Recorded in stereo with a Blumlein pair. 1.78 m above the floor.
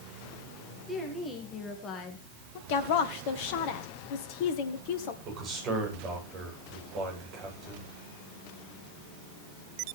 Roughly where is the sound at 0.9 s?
Ahead.